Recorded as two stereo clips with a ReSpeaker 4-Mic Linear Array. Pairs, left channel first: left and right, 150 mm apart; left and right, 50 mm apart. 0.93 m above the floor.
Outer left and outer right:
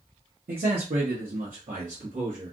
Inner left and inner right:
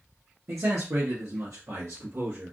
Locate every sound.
0.5 s a man speaking: 65° right (ahead or behind), 0.7 m; by 2.5 s 55° right (ahead or behind), 1.4 m